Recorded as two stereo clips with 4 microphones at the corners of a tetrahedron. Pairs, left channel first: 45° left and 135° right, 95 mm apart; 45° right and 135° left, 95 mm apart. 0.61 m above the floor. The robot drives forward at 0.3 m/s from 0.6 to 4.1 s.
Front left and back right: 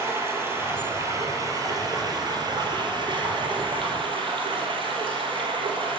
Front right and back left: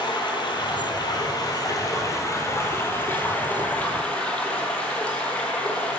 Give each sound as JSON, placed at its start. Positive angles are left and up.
{"t": 0.0, "sound": "running water", "azimuth_deg": -75, "distance_m": 1.3}